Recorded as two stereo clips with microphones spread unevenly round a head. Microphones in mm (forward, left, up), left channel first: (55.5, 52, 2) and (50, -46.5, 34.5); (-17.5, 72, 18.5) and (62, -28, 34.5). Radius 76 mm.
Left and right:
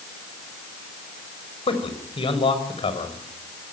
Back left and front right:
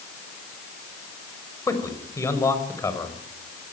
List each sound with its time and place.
1.7 s a man speaking: 60° left, 5.5 m